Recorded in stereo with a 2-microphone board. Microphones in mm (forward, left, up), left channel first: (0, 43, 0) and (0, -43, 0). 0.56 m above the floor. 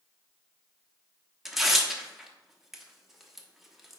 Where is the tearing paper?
5° right (ahead or behind), 0.9 m.